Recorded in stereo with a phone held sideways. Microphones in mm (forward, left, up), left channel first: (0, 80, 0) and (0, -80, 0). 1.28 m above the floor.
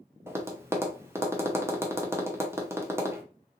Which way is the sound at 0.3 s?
15° right (ahead or behind).